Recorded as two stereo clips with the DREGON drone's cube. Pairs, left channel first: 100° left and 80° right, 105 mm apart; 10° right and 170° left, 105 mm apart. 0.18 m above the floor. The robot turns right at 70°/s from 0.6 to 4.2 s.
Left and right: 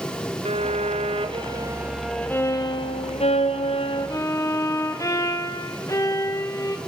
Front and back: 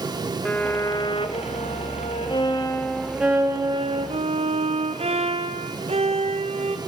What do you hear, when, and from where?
0.5 s a violin: 95° right, 3 m; by 6.8 s 160° left, 3 m